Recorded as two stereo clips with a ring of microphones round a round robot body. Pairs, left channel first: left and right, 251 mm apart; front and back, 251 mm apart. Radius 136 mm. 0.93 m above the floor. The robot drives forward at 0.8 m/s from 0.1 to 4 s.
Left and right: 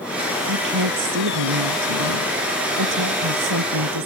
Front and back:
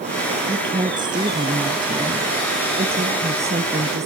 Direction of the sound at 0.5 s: 105° right.